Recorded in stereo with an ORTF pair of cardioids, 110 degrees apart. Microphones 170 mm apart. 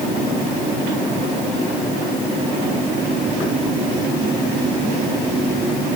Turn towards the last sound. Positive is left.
No sound to turn to.